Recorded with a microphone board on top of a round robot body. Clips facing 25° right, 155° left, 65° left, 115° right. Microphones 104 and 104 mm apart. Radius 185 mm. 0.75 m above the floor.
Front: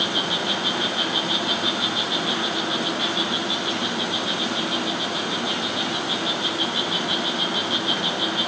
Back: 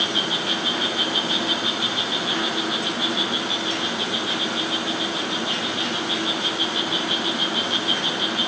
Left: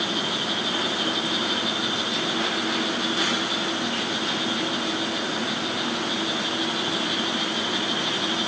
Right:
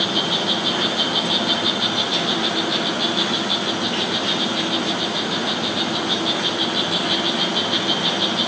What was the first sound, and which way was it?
An insect, 95° right.